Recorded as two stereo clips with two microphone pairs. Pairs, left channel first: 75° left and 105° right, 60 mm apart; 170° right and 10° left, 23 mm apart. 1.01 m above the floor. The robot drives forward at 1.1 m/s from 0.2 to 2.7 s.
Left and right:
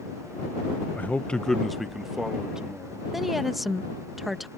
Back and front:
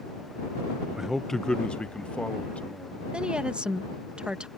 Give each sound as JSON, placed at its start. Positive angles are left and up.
{"t": 1.0, "sound": "a man speaking", "azimuth_deg": 35}
{"t": 3.1, "sound": "a woman speaking", "azimuth_deg": -20}